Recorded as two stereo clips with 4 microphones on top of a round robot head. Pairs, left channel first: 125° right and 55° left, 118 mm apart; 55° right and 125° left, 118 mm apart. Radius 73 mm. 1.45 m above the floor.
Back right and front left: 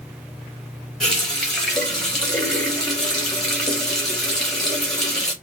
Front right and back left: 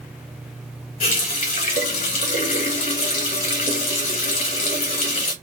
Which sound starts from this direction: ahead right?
A running tap, at 1.0 s.